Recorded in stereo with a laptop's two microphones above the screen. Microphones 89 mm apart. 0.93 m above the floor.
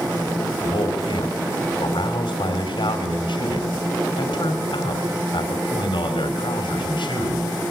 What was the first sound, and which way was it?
A man speaking, 75° left (ahead or behind).